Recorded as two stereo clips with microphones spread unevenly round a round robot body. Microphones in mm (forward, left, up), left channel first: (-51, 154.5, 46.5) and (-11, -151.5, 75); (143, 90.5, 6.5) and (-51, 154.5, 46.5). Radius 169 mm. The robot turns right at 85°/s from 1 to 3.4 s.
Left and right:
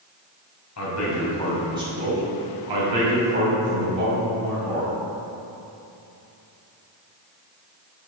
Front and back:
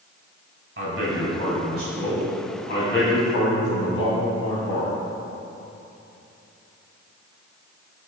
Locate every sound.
0.8 s a man speaking: 135° left, 2.5 m; by 4.9 s 20° right, 2.5 m